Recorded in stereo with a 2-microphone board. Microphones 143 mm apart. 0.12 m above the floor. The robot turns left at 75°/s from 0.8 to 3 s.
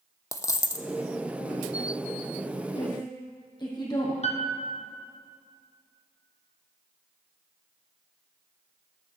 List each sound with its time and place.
0.3 s a dropped coin: 20° left (ahead or behind), 0.7 m
2.8 s a woman speaking: 50° left (ahead or behind), 4 m; by 4.1 s 30° left (ahead or behind), 4 m
4.2 s a piano: 50° left (ahead or behind), 1.1 m